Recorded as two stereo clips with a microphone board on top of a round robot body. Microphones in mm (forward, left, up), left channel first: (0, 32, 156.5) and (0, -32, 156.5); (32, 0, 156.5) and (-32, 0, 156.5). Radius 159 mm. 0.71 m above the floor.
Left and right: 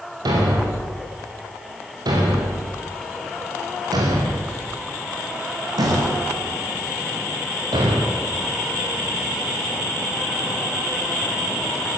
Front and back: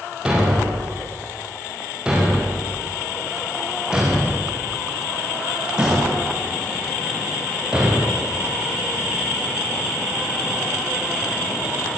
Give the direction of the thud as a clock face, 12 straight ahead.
3 o'clock.